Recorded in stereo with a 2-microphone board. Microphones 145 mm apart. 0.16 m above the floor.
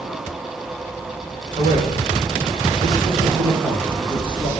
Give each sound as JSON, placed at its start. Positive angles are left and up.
{"t": 1.6, "sound": "a man speaking", "side_deg": -50, "distance_m": 7.0}